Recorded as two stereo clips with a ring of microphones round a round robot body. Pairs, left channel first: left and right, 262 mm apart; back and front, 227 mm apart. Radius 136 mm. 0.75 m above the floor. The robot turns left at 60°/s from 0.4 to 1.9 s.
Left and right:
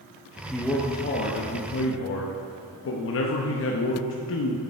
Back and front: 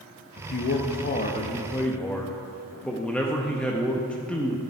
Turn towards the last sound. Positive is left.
turn(degrees=95)